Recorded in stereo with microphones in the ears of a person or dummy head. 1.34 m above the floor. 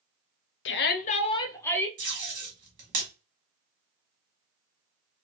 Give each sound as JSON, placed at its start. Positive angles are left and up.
{"t": 0.7, "sound": "a shout", "side_deg": 60, "distance_m": 0.6}
{"t": 2.0, "sound": "tape being pulled", "side_deg": -50, "distance_m": 1.5}